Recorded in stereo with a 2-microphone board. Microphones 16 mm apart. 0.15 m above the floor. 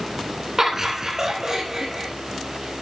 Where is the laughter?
30° right (ahead or behind), 1.5 m; by 2.1 s 35° right (ahead or behind), 2 m.